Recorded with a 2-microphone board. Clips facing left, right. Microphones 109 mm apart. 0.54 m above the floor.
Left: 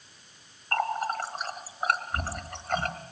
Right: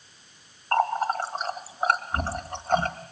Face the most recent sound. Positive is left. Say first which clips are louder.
# right 5 dB
turn(degrees=-30)  # may be behind; listen again after turning